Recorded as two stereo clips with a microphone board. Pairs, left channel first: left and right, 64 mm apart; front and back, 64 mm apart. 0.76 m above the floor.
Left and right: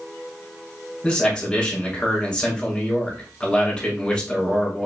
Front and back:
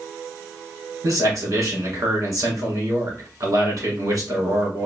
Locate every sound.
1.0 s a man speaking: 165° left, 1.7 m